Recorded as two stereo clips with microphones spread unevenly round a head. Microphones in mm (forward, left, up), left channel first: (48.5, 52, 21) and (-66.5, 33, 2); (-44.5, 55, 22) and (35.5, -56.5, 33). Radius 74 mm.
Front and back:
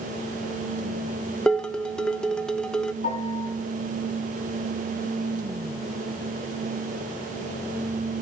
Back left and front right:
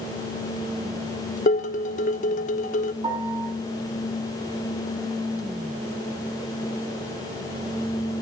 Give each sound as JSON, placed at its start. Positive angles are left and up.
{"t": 1.5, "sound": "dishes clattering", "azimuth_deg": 85, "distance_m": 0.9}
{"t": 3.0, "sound": "a piano", "azimuth_deg": 5, "distance_m": 3.5}